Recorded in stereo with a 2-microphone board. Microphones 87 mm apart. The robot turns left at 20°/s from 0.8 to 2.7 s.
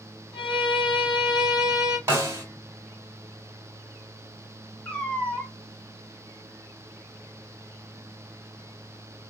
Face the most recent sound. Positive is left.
turn(degrees=15)  # may be behind; listen again after turning